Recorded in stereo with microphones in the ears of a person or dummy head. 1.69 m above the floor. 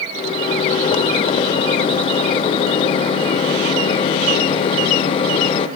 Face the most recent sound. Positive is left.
turn(degrees=30)  # may be behind; listen again after turning